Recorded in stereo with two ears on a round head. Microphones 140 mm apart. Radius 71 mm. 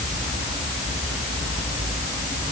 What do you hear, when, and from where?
Only background noise.